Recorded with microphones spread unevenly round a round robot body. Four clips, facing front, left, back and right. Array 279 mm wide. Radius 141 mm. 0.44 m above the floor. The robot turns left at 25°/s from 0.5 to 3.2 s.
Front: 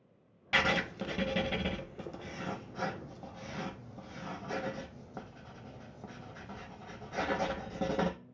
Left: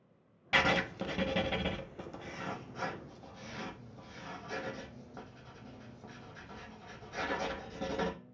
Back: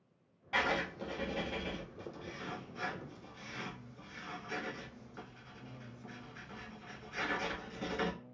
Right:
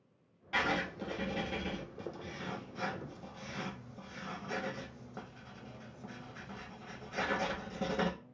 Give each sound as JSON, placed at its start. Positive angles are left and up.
{"t": 0.5, "sound": "writing", "azimuth_deg": 45, "distance_m": 0.7}